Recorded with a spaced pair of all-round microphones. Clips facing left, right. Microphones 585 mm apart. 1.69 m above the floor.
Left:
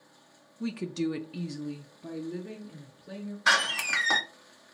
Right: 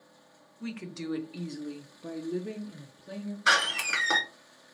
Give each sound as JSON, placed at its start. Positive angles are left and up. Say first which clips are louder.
{"t": 0.6, "sound": "a woman speaking", "louder": "left 7 dB", "side_deg": 60, "distance_m": 0.7}
{"t": 3.5, "sound": "a door slam", "louder": "right 1 dB", "side_deg": 20, "distance_m": 0.6}